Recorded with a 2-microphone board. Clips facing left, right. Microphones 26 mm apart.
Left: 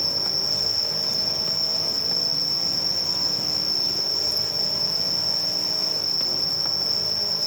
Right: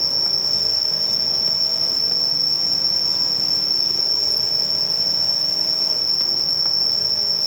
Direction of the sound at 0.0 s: 70° right (ahead or behind).